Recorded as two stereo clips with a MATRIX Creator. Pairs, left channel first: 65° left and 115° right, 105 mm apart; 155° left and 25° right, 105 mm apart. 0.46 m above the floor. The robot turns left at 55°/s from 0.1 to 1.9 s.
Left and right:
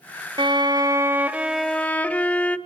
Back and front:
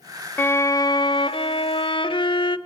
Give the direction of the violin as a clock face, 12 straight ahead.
5 o'clock.